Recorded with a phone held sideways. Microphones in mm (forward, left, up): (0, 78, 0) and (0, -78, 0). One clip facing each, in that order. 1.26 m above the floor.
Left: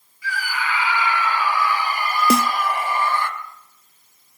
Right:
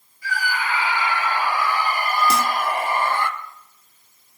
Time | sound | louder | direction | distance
0.2 | a scream | right 1 dB | 40° right (ahead or behind) | 3.5 m
2.3 | a snare drum | left 3 dB | 60° left (ahead or behind) | 0.6 m